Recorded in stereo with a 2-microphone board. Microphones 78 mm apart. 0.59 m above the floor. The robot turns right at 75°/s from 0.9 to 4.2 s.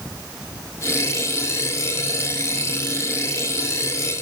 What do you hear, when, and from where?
Only background noise.